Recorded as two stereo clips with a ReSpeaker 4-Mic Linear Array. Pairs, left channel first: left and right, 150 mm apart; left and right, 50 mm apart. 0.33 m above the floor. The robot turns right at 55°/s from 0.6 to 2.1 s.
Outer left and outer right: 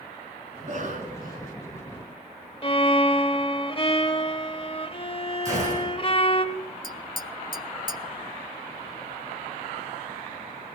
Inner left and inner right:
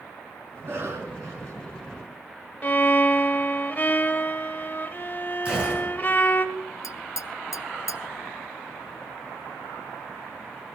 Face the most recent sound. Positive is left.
turn(degrees=80)